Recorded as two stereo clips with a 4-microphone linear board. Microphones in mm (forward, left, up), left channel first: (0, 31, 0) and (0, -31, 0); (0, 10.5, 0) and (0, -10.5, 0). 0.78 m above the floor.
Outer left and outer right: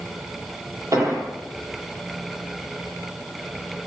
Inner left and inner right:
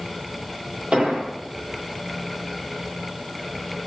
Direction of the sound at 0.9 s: 55° right (ahead or behind).